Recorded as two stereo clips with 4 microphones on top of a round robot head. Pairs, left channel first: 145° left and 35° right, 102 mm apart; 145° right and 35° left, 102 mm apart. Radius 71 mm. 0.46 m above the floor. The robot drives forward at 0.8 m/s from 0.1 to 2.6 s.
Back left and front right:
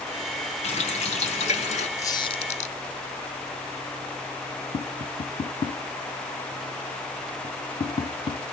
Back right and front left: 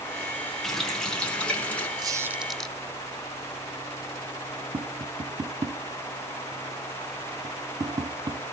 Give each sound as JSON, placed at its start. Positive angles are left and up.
{"t": 0.6, "sound": "a running tap", "azimuth_deg": 125, "distance_m": 3.0}
{"t": 2.0, "sound": "a squeak", "azimuth_deg": 80, "distance_m": 0.7}
{"t": 4.7, "sound": "tapping", "azimuth_deg": 95, "distance_m": 1.0}